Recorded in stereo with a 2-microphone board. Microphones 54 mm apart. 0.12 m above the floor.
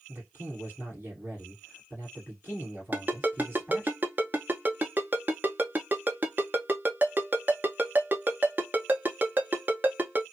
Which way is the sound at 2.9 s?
35° right (ahead or behind).